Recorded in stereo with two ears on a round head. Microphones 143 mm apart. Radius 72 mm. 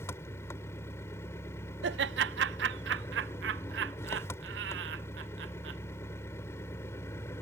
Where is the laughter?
75° right (ahead or behind).